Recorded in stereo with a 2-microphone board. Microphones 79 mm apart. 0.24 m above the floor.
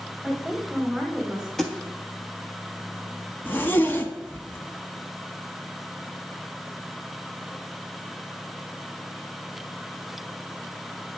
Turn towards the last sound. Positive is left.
turn(degrees=25)  # may be behind; listen again after turning